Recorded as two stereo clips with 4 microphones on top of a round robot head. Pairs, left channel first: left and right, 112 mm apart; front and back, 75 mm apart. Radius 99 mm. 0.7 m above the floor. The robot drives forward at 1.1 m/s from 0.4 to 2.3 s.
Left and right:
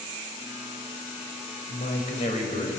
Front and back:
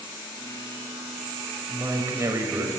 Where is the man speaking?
125° left, 3.5 m; by 2.7 s 135° left, 4 m.